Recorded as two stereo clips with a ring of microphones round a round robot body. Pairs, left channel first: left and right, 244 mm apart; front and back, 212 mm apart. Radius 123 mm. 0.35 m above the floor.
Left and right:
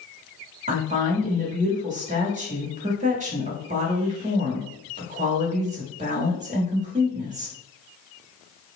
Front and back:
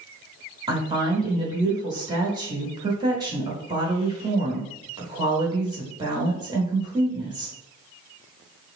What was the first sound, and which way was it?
A woman speaking, 125° right.